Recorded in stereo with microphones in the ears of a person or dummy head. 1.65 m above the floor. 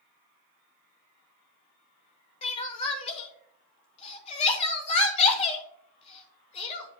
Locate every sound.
2.4 s crying: 30° left (ahead or behind), 1.1 m